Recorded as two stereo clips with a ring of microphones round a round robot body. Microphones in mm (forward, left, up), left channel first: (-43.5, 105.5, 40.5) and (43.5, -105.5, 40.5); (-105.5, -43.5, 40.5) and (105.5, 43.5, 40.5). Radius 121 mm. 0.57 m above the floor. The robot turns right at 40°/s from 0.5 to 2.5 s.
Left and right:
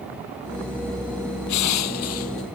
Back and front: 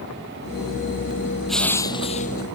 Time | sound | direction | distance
1.5 | crushing | 115° left | ?